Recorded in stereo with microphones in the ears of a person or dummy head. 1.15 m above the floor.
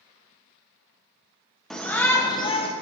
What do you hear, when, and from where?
1.7 s a shout: centre (ahead or behind), 1.1 m; by 2.7 s 30° left (ahead or behind), 1.0 m